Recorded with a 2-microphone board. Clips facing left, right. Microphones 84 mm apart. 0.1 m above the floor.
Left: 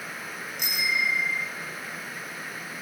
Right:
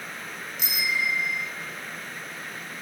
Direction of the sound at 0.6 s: 55° left (ahead or behind).